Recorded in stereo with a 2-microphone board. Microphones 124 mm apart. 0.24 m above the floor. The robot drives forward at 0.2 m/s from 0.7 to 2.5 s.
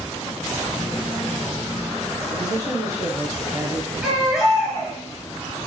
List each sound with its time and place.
2.3 s a man speaking: 35° right (ahead or behind), 1.3 m; by 3.9 s 30° right (ahead or behind), 1.3 m
4.0 s a baby crying: 5° right (ahead or behind), 2.5 m